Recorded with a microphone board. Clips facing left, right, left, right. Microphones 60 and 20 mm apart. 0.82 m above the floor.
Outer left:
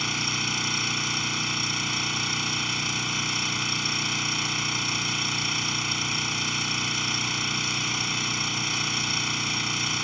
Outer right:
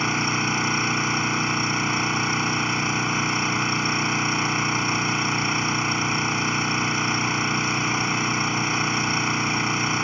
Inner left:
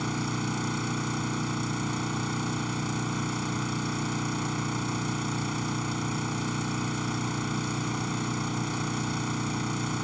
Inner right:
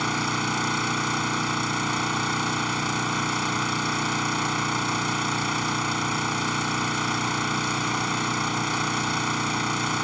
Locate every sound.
0.0 s an engine running: 30° right (ahead or behind)